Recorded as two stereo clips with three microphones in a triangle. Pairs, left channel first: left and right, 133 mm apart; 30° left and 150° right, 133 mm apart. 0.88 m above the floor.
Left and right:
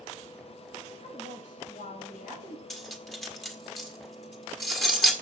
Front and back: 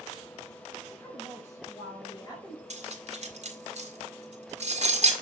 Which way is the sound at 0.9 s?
105° left.